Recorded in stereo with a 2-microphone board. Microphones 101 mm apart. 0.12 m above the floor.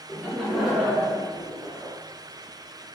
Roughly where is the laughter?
Centre.